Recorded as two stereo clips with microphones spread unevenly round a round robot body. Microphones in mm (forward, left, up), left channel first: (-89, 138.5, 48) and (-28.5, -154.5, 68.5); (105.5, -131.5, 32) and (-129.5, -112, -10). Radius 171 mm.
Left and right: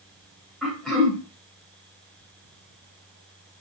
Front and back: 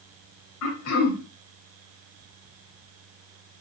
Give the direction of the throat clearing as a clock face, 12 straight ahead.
12 o'clock.